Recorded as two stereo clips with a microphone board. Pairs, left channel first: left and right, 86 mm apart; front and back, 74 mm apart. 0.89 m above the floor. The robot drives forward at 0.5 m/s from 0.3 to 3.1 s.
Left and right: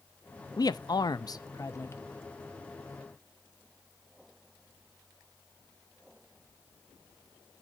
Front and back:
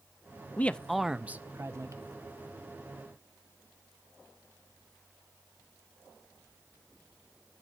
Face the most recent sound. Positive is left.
turn(degrees=160)